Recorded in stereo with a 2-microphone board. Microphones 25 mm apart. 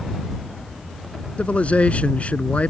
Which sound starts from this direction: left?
A man speaking, at 1.4 s.